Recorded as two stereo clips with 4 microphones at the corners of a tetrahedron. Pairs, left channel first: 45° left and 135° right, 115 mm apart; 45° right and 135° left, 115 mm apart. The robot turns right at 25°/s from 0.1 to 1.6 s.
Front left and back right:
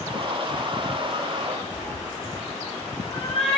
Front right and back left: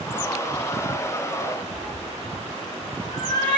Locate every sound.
1.7 s a cat meowing: 10° left, 2.5 m